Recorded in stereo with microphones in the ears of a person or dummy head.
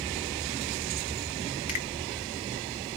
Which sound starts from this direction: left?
A finger snap, at 1.7 s.